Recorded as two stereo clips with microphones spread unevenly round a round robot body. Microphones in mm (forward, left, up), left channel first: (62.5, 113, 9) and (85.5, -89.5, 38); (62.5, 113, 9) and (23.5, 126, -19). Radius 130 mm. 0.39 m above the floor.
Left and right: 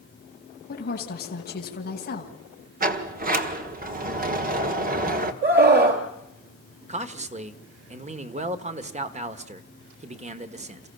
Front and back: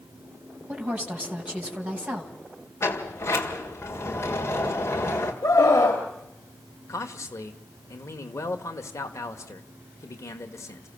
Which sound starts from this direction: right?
A sliding door, at 2.8 s.